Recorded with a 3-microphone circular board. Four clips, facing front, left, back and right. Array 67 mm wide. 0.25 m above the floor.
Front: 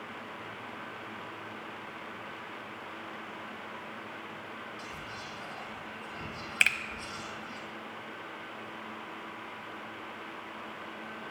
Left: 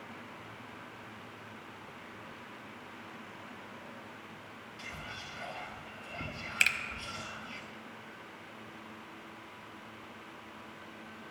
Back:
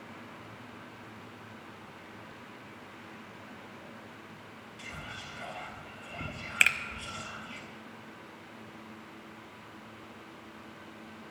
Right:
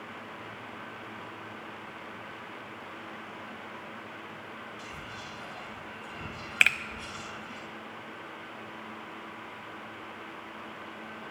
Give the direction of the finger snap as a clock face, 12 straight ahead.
3 o'clock.